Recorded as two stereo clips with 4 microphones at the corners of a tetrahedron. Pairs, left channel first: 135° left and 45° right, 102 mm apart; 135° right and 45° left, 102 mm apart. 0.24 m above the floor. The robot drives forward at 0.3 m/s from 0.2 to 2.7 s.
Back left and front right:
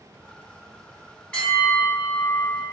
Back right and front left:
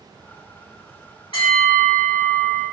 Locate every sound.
1.3 s a bell: 150° right, 1.9 m; by 2.6 s 155° right, 2 m